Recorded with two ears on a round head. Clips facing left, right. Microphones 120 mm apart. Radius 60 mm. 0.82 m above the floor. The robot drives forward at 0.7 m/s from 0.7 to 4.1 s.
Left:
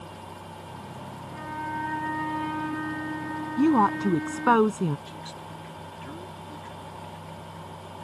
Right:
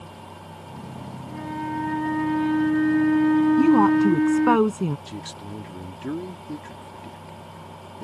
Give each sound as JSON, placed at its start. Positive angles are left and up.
{"t": 1.3, "sound": "a flute", "side_deg": -25}
{"t": 3.6, "sound": "a woman speaking", "side_deg": -10}
{"t": 5.1, "sound": "a man speaking", "side_deg": -60}